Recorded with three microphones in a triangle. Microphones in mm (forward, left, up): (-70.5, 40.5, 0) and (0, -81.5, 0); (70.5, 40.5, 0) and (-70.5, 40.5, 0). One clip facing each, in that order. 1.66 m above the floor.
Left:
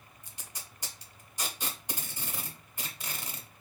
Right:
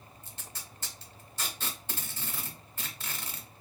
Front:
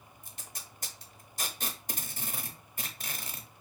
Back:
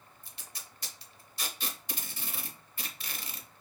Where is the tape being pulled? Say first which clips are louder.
Even, front 2 dB; 45° left, 0.7 m.